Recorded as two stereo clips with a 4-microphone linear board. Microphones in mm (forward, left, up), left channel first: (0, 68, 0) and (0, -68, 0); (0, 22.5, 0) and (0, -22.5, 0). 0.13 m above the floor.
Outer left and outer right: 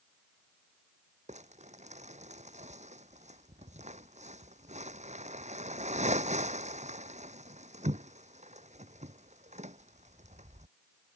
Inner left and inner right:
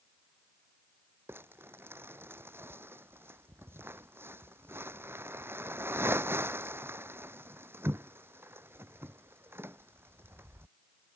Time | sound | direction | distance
1.3 | crumpling | 60° right (ahead or behind) | ?